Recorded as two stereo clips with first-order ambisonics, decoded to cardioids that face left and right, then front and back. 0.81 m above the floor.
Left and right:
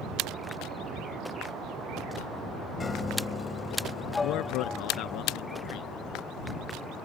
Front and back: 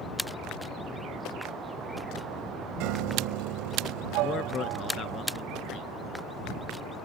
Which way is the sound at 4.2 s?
60° left.